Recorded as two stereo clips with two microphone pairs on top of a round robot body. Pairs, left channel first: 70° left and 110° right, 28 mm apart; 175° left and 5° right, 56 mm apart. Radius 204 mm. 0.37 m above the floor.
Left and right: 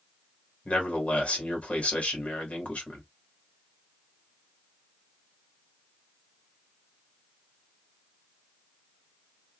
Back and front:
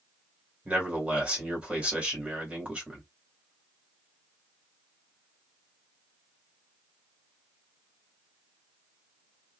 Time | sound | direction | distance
0.7 | a man speaking | 65° left | 1.7 m